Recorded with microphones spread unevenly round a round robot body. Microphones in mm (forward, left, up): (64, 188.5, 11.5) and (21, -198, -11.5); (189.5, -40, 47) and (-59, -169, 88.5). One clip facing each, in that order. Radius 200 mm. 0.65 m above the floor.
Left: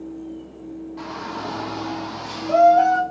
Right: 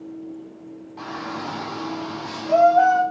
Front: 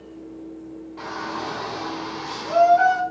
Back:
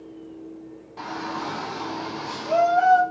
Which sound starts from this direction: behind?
A shout, at 1.0 s.